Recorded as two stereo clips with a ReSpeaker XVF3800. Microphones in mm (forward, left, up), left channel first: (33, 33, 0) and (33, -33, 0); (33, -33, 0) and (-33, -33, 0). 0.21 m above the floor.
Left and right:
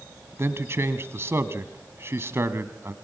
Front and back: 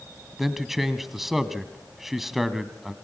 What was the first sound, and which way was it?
A man speaking, 95° right.